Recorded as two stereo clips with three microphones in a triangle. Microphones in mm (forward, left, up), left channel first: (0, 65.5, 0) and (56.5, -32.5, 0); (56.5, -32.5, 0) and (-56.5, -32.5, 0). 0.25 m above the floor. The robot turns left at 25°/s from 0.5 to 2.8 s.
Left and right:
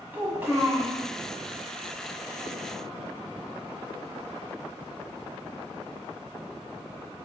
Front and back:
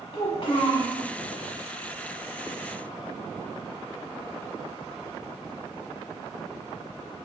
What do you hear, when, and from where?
0.1 s a child speaking: 5° left, 1.0 m; by 1.0 s 5° right, 1.0 m